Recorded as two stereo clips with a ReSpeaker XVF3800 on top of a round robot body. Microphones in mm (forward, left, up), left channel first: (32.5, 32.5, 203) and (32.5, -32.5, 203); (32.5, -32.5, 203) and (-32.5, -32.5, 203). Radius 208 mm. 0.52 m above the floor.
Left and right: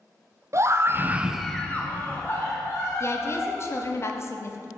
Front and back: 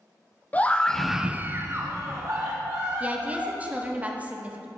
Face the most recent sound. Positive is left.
turn(degrees=120)